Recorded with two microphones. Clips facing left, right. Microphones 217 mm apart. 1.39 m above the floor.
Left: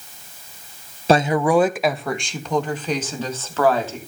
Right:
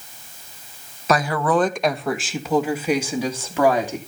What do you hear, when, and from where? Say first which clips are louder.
1.1 s a woman speaking: left 4 dB; 30° left (ahead or behind), 0.6 m; by 4.0 s 15° right (ahead or behind), 3 m